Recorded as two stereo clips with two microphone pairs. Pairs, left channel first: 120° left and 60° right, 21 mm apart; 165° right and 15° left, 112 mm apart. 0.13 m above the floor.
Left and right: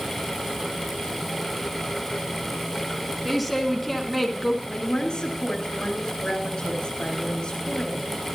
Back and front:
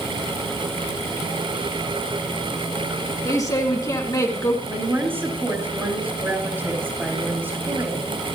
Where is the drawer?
No drawer in this recording.